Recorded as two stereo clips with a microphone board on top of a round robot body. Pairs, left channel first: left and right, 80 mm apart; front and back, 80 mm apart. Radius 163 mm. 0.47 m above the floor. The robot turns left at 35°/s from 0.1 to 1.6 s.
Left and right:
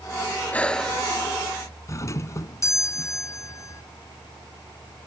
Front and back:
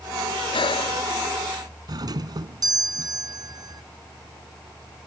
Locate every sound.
0.5 s breathing: 15° left; by 1.0 s straight ahead
1.9 s a doorbell: 140° left